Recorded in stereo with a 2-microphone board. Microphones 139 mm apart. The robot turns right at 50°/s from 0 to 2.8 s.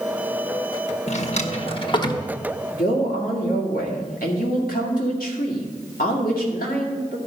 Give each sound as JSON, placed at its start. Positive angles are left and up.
{"t": 1.1, "sound": "a drawer", "side_deg": 55, "distance_m": 0.9}
{"t": 2.7, "sound": "a man speaking", "side_deg": 85, "distance_m": 2.0}